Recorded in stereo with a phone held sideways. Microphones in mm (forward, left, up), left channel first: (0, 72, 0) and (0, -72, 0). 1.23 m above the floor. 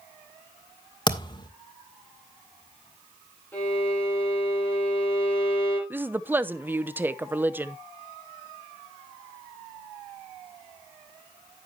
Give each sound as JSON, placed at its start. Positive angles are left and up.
{"t": 1.1, "sound": "a thud", "side_deg": 30, "distance_m": 1.8}
{"t": 3.5, "sound": "a violin", "side_deg": 15, "distance_m": 7.0}
{"t": 5.9, "sound": "a woman speaking", "side_deg": -15, "distance_m": 0.7}